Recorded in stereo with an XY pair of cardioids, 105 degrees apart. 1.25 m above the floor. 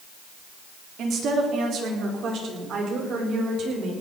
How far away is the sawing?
I don't hear sawing.